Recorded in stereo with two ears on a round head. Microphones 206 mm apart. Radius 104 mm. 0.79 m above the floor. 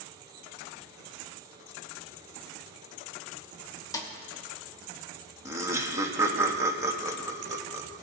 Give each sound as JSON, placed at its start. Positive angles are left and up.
{"t": 3.9, "sound": "a snare drum", "side_deg": 15, "distance_m": 0.9}
{"t": 5.5, "sound": "laughter", "side_deg": -10, "distance_m": 0.9}